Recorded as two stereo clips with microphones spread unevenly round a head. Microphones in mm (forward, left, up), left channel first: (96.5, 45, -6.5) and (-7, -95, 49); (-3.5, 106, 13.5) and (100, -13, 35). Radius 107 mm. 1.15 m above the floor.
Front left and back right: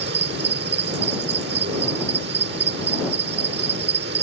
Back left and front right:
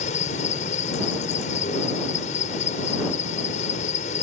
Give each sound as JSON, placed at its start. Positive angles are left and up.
{"t": 0.0, "sound": "an insect", "azimuth_deg": -170}